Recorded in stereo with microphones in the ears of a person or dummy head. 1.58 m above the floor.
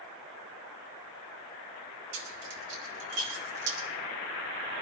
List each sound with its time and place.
2.1 s keys jangling: 70° right (ahead or behind), 5 m; by 3.8 s 60° right (ahead or behind), 4.5 m